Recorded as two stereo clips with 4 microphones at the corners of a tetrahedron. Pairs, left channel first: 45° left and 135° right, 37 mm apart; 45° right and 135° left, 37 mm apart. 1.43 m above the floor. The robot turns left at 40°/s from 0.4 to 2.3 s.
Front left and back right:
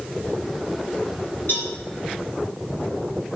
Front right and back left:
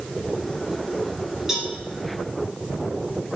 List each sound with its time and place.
1.5 s a cowbell: 60° left, 4 m; by 1.7 s 50° left, 4 m